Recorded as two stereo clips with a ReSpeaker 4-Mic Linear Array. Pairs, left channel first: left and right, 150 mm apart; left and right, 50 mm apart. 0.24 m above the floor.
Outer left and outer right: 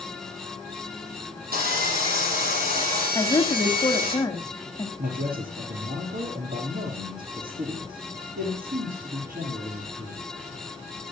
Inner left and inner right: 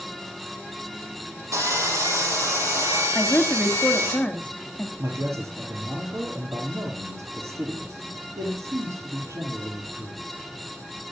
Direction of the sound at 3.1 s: 25° left (ahead or behind).